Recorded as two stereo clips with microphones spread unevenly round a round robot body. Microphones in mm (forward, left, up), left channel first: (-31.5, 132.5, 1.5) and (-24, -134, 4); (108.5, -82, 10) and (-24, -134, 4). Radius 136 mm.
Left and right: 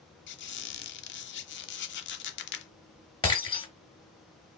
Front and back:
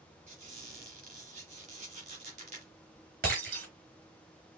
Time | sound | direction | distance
0.3 | a squeak | 140° left | 0.8 m
3.2 | breaking glass | 165° left | 3.5 m